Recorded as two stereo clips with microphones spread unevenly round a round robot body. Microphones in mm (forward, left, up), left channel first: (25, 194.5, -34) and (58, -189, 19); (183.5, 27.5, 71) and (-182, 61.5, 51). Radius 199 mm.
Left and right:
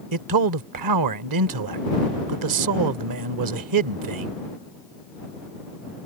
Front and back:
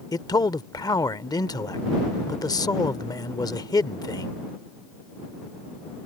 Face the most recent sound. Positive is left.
turn(degrees=-85)